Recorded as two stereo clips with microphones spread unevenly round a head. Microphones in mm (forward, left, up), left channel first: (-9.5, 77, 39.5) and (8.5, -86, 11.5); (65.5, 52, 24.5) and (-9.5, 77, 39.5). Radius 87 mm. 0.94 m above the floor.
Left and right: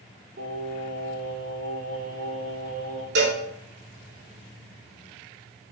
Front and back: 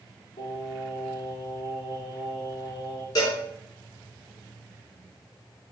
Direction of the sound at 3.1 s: 70° right.